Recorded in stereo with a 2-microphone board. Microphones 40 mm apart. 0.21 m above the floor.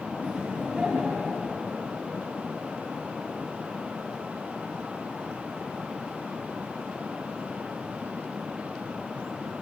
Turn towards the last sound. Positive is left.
turn(degrees=-35)  # may be behind; listen again after turning